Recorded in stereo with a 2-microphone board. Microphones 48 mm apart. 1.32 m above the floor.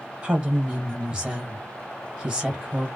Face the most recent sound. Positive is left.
turn(degrees=-20)  # may be behind; listen again after turning